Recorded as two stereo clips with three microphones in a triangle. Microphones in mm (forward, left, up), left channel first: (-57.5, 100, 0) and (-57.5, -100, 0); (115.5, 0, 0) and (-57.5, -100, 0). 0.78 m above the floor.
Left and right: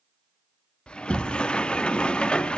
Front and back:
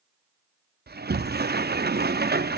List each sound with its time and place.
0.9 s a sliding door: 175° left, 0.7 m